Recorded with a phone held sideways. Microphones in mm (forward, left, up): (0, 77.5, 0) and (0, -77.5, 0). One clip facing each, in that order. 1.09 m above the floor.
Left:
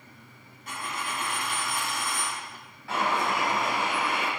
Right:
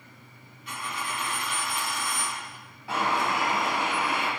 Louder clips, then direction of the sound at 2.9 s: Even; 20° right (ahead or behind).